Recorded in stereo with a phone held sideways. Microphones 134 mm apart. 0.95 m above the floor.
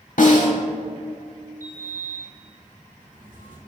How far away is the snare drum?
About 1.3 m.